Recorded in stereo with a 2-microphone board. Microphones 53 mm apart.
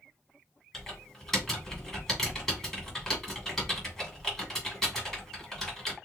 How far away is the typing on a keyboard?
About 2.5 m.